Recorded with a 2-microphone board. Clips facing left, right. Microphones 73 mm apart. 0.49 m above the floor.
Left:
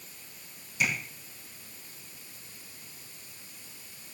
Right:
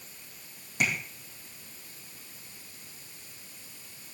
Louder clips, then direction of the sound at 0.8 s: Right 1 dB; 55° right (ahead or behind).